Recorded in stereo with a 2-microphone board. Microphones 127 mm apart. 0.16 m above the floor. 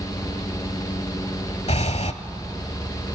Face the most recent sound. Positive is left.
turn(degrees=60)  # may be behind; listen again after turning